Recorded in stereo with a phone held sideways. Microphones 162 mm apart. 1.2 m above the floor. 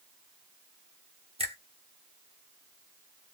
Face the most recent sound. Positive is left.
turn(degrees=-35)  # may be behind; listen again after turning